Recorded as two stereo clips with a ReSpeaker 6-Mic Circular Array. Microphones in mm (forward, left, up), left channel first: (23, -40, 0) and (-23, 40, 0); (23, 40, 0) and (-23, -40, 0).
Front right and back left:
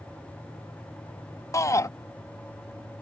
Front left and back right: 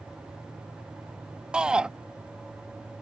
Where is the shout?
45° right.